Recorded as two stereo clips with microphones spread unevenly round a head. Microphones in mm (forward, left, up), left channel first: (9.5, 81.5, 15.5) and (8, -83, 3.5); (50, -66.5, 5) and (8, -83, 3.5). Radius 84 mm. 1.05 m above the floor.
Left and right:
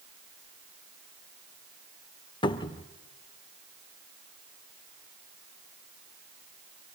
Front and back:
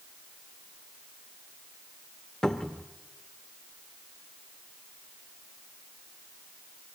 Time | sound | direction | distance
2.4 | a cupboard door | 80° left | 0.7 m